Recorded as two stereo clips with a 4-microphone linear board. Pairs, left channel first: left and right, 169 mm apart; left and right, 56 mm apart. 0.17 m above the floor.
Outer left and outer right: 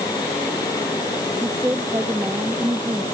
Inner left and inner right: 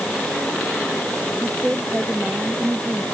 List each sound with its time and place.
1.4 s a woman speaking: 20° right (ahead or behind)